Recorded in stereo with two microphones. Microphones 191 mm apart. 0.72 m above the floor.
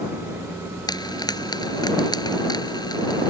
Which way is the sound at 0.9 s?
20° left (ahead or behind).